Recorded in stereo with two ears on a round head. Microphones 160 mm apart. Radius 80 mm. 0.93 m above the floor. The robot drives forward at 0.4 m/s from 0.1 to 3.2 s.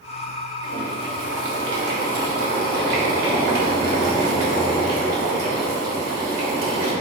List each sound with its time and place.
0.6 s boiling: 75° right (ahead or behind), 2 m; by 6.9 s 55° right (ahead or behind), 2.5 m